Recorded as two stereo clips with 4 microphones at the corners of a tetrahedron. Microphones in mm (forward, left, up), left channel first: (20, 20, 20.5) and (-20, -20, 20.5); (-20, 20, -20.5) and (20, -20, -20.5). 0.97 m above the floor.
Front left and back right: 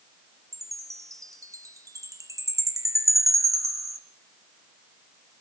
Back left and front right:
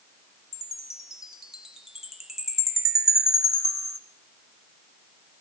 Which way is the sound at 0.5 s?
130° right.